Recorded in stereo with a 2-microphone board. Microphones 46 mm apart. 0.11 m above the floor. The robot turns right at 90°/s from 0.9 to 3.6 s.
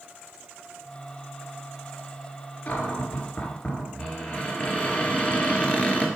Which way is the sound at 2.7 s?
50° left.